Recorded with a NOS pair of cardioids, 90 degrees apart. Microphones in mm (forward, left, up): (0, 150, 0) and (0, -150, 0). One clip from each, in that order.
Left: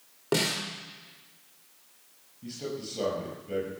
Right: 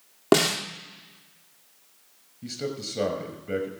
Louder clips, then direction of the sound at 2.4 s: Right 4 dB; 55° right.